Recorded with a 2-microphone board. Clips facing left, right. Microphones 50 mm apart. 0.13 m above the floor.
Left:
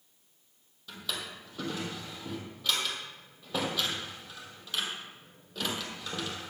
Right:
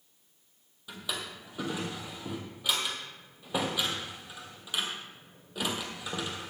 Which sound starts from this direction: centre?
A drawer, at 0.9 s.